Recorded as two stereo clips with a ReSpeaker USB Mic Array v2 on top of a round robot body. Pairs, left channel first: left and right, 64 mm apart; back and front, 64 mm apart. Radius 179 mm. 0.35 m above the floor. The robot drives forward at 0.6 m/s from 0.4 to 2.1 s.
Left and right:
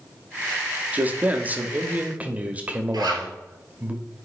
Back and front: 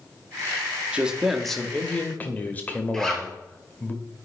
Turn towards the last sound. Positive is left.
turn(degrees=-105)